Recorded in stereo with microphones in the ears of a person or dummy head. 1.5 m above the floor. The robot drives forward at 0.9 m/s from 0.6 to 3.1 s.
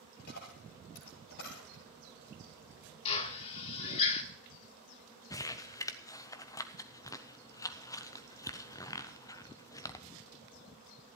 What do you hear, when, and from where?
0.2 s a dropped coin: 50° left (ahead or behind), 9 m; by 1.8 s 60° left (ahead or behind), 8.5 m
3.0 s a drill: 30° left (ahead or behind), 1.5 m
5.3 s crumpling: 20° left (ahead or behind), 0.7 m